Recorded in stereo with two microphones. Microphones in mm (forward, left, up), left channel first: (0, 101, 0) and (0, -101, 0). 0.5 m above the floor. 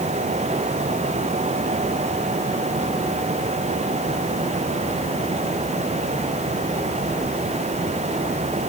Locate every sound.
Only background noise.